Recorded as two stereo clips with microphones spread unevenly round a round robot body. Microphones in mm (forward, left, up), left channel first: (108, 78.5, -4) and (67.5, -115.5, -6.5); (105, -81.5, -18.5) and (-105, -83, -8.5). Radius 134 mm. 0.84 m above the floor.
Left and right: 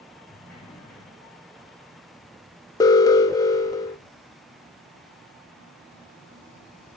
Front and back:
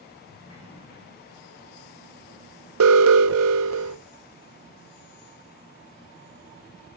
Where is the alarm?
155° left, 0.6 m.